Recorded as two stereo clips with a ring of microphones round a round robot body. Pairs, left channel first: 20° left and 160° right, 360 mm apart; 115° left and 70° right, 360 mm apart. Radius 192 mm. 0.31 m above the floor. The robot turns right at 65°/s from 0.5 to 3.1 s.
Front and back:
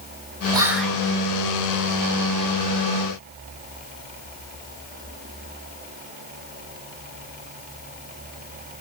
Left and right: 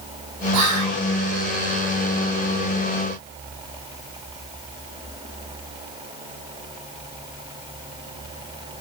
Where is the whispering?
85° right, 1.9 m; by 1.0 s 50° right, 1.9 m.